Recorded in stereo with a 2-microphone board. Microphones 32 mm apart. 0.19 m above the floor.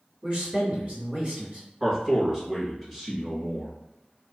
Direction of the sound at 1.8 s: 15° right (ahead or behind).